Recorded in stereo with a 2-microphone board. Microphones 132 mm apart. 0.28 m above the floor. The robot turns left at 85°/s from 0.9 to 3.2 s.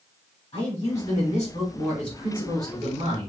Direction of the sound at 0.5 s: 105° left.